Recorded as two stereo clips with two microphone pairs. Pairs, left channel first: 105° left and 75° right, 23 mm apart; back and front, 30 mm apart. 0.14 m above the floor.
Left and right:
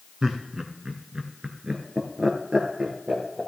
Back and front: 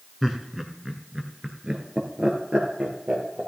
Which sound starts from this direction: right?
Laughter, at 0.2 s.